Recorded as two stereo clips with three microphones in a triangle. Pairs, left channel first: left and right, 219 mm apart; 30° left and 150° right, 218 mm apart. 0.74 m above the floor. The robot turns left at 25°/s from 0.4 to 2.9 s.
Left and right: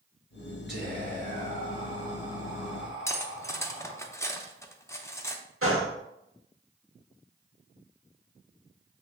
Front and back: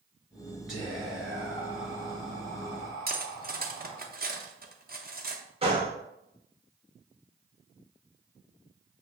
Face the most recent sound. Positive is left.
turn(degrees=-85)